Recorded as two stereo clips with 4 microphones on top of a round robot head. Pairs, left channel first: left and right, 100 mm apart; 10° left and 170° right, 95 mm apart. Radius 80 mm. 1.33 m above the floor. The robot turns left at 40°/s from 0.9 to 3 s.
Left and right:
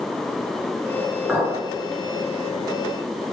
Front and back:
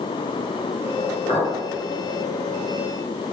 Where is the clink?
5° right, 0.8 m; by 1.6 s 15° right, 0.8 m.